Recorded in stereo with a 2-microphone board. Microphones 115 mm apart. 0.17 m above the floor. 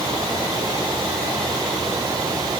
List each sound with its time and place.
Only background noise.